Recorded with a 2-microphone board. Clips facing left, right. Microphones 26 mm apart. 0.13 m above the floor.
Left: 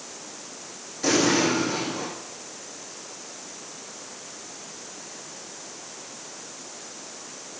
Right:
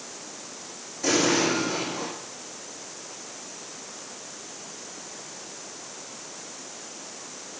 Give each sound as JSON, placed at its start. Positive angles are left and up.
{"t": 1.0, "sound": "an explosion", "side_deg": 30, "distance_m": 7.5}